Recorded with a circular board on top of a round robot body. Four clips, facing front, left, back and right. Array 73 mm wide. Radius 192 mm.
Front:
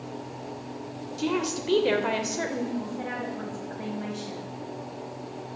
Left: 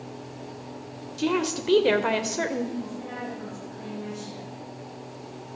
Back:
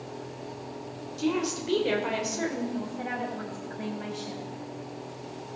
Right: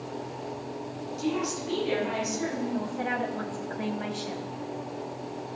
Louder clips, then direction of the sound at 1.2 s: Left 4 dB, even; 70° left.